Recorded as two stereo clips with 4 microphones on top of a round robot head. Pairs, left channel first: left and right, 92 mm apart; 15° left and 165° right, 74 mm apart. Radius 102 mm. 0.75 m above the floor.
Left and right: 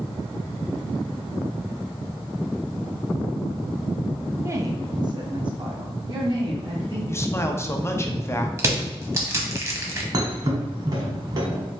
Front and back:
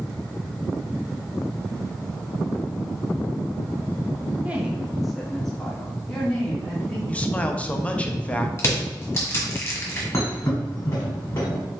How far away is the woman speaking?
About 0.6 m.